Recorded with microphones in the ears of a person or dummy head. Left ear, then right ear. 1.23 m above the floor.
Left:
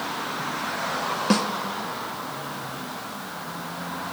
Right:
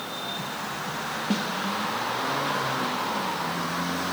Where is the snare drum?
55° left (ahead or behind), 0.8 m.